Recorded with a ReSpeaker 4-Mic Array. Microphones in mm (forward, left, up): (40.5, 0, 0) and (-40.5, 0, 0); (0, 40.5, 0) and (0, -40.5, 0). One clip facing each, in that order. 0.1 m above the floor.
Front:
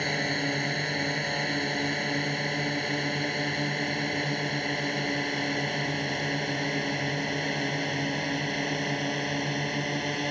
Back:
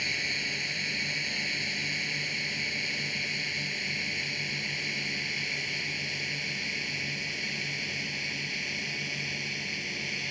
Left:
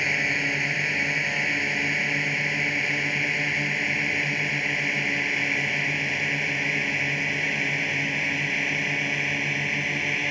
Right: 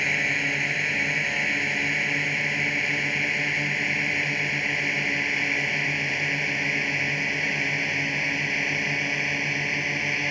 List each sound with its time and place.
0.0 s a drone: straight ahead; by 10.3 s 5° right